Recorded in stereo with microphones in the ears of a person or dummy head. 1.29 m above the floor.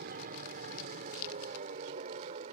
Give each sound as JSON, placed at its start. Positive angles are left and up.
{"t": 0.0, "sound": "an aircraft", "side_deg": -50}